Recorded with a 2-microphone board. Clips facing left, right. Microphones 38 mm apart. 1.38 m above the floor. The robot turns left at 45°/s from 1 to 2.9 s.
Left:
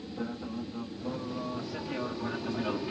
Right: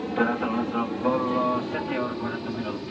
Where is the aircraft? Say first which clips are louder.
Right 13 dB; 60° right (ahead or behind); by 2.9 s 5° left (ahead or behind).